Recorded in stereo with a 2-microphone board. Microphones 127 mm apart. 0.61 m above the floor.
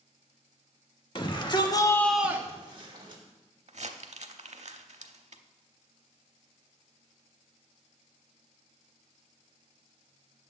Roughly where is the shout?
Left.